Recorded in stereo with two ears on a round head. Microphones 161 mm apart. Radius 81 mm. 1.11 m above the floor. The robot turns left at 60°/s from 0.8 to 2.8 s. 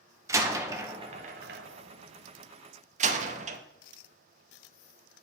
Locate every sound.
0.3 s a door slam: 15° right (ahead or behind), 0.7 m; by 3.6 s 40° right (ahead or behind), 0.7 m